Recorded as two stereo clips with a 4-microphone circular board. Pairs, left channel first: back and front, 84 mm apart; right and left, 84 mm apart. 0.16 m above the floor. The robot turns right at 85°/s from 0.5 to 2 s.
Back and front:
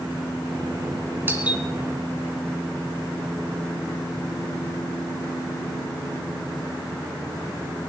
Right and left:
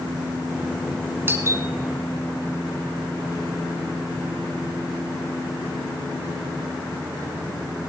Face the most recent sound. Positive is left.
turn(degrees=110)